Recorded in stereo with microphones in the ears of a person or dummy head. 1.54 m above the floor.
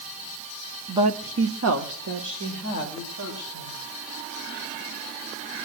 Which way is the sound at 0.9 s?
5° right (ahead or behind).